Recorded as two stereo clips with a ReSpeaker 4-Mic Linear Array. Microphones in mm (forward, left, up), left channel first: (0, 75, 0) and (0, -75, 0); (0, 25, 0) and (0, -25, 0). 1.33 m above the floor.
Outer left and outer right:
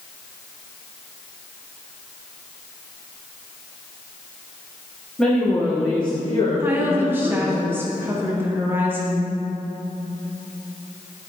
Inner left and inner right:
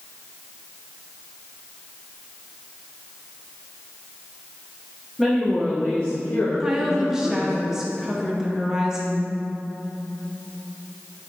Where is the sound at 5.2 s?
5° left (ahead or behind), 0.9 m; by 7.6 s 65° left (ahead or behind), 1.5 m.